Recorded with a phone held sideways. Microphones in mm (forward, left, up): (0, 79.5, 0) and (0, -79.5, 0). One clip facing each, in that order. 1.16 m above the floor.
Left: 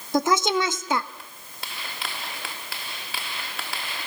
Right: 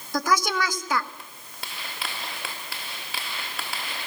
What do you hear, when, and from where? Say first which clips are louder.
0.1 s a woman speaking: left 3 dB; 25° left (ahead or behind), 1.4 m